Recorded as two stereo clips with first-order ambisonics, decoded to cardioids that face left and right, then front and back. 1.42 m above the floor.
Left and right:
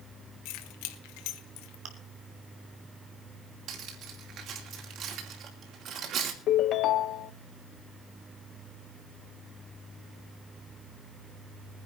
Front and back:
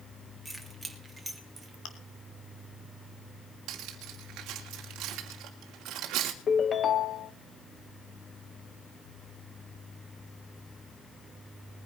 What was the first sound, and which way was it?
Keys jangling, 90° left.